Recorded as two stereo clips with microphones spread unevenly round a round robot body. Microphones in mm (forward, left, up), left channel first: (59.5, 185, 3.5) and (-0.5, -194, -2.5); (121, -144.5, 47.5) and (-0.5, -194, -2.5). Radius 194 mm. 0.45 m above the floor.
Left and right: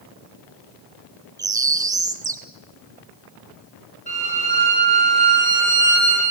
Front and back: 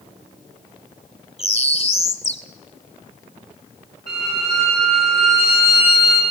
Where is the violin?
155° left, 7.5 m.